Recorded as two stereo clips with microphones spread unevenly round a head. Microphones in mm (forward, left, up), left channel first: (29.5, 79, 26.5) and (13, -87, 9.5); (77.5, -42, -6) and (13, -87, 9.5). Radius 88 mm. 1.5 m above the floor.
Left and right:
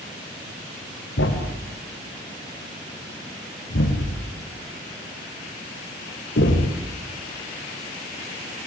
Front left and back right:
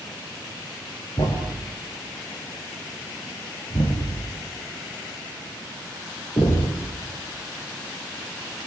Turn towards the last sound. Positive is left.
turn(degrees=95)